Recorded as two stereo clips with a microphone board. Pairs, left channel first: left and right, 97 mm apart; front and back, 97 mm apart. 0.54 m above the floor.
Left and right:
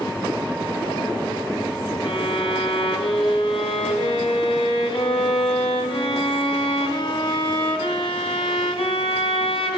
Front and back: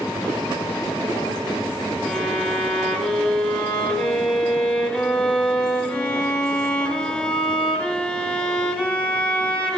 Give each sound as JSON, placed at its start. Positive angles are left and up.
{"t": 2.0, "sound": "a violin", "azimuth_deg": 80, "distance_m": 1.5}